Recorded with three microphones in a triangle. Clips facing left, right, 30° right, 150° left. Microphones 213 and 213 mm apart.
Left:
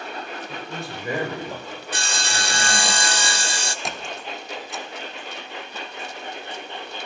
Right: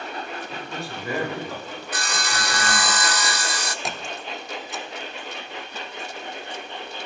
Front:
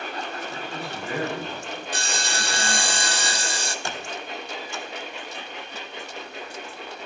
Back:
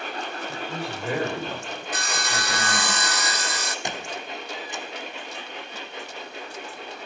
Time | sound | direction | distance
0.5 | a man speaking | 160° left | 5.5 m
1.9 | sawing | 25° left | 0.7 m
3.9 | a squeak | straight behind | 0.9 m